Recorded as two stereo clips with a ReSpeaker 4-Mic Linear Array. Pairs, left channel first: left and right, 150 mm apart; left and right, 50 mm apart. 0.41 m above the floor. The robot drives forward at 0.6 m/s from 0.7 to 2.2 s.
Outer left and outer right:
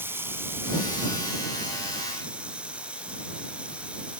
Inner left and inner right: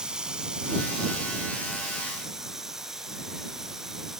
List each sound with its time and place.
0.0 s running water: 15° right (ahead or behind), 1.0 m; by 4.2 s 5° right (ahead or behind), 1.9 m